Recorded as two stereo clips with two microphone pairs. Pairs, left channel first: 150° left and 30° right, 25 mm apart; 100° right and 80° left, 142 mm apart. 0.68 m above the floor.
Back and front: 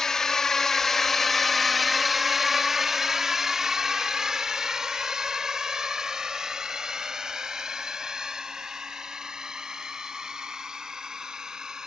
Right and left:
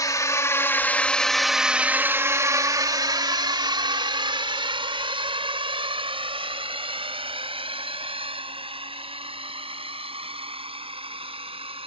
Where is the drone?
150° right; by 11.9 s 30° left.